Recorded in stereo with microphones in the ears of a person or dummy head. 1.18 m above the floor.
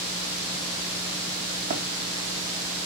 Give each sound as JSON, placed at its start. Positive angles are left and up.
{"t": 1.7, "sound": "running footsteps", "side_deg": -40, "distance_m": 5.0}